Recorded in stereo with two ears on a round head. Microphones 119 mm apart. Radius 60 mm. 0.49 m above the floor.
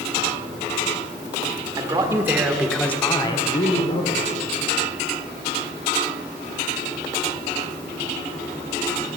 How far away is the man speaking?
About 1.4 m.